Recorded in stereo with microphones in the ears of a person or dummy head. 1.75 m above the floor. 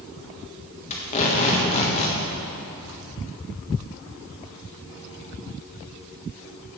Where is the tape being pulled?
40° left (ahead or behind), 1.5 m.